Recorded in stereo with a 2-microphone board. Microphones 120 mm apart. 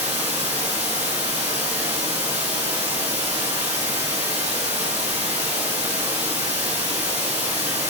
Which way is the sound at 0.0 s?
65° right (ahead or behind).